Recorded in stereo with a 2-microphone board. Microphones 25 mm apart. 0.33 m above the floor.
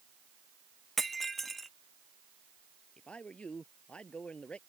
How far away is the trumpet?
I don't hear a trumpet.